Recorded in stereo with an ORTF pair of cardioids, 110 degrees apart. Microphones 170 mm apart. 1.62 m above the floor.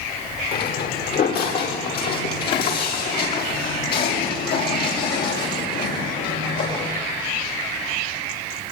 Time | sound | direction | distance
0.5 | footsteps | 65° left | 7.5 m